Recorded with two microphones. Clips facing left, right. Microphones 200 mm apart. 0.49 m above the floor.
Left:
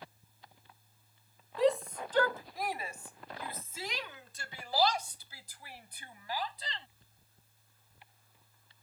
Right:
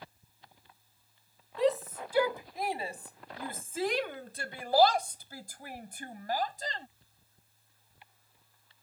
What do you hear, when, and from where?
1.6 s a shout: centre (ahead or behind); by 6.9 s 45° right (ahead or behind)